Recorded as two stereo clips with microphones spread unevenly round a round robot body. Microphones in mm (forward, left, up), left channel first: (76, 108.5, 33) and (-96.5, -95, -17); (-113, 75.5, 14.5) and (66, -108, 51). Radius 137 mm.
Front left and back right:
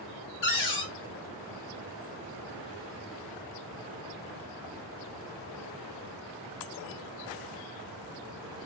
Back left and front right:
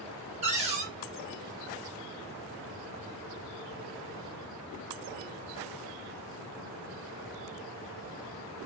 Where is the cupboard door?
15° left, 0.7 m.